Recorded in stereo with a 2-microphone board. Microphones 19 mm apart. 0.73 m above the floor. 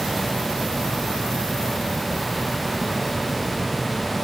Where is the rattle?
I don't hear a rattle.